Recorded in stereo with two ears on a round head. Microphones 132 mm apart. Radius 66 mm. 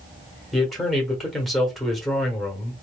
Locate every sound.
0.5 s a man speaking: centre (ahead or behind), 1.4 m